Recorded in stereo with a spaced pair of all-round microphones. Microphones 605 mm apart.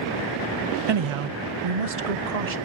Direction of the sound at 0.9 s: 45° right (ahead or behind).